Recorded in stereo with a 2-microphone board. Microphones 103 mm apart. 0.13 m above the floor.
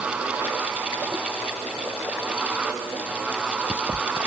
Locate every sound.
Only background noise.